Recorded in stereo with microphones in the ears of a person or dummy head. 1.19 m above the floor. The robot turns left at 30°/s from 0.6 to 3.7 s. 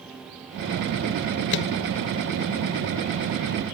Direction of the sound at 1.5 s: 55° left (ahead or behind).